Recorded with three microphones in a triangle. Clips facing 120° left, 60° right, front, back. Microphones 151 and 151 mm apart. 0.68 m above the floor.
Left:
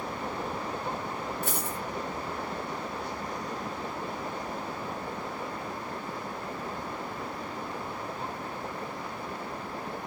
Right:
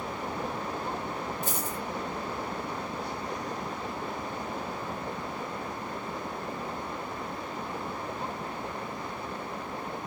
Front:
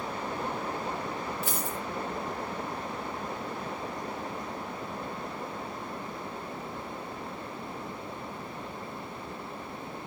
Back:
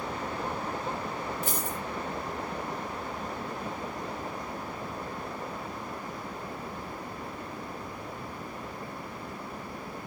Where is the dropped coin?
140° left, 2 m.